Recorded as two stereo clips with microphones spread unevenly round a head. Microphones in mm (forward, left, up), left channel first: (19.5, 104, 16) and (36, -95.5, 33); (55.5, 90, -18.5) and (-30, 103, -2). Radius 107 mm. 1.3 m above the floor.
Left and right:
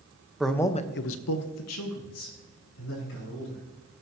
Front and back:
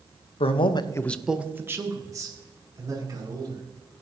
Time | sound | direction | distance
0.4 | a man speaking | straight ahead | 1.0 m